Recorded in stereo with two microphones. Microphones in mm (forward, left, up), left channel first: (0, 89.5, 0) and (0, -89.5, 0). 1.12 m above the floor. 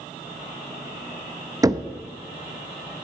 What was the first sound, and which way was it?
Knocking, 20° right (ahead or behind).